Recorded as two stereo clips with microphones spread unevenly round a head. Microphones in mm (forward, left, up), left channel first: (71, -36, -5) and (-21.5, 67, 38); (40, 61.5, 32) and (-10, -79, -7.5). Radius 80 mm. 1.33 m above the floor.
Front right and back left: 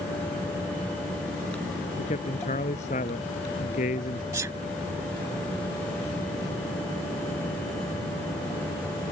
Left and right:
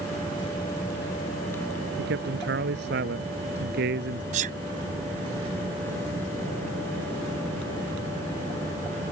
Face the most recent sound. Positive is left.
turn(degrees=-160)